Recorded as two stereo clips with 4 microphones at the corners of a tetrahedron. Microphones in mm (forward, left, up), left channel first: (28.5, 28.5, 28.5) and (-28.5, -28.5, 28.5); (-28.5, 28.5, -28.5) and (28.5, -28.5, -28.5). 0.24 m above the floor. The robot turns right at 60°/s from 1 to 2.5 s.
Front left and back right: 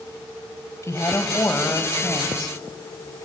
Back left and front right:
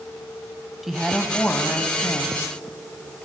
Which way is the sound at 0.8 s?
40° left.